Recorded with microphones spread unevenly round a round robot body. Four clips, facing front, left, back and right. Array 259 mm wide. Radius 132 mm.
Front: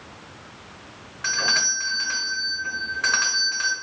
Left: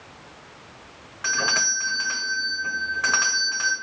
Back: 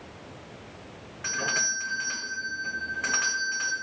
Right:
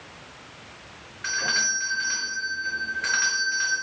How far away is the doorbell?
About 1.6 m.